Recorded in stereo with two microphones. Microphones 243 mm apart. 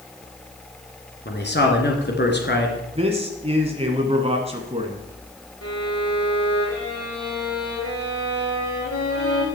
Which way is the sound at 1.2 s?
45° left (ahead or behind).